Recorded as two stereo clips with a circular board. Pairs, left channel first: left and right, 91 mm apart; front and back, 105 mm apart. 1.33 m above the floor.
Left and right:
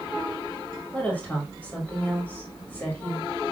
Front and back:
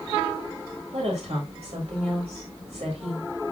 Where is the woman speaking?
170° left, 3.5 m.